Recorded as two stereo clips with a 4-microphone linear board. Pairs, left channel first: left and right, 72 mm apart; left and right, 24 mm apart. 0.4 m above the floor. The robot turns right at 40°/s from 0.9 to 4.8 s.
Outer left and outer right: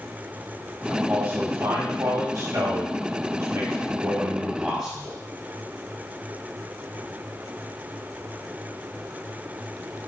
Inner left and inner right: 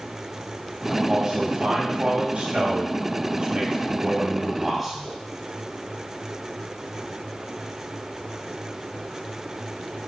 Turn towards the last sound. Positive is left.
turn(degrees=-10)